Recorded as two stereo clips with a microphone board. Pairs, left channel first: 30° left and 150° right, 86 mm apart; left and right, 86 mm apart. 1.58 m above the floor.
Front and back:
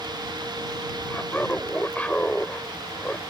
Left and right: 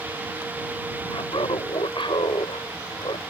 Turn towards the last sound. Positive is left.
turn(degrees=105)